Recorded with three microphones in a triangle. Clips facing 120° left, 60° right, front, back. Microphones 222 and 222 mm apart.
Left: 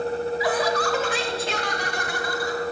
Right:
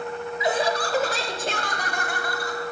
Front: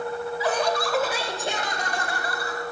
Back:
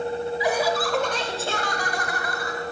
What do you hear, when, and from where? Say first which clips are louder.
0.4 s laughter: right 2 dB, even; 115° right, 1.5 m; by 2.6 s 45° right, 2.5 m